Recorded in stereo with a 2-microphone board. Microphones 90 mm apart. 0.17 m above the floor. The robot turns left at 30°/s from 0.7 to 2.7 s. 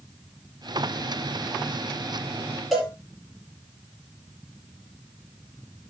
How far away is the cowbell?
About 6.5 m.